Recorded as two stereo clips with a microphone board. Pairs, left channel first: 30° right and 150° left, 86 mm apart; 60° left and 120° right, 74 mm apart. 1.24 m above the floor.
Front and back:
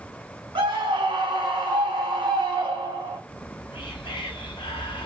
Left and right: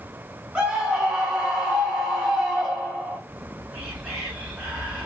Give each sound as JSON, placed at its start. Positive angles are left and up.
{"t": 0.6, "sound": "a scream", "azimuth_deg": 160, "distance_m": 1.2}
{"t": 3.3, "sound": "whispering", "azimuth_deg": -35, "distance_m": 1.0}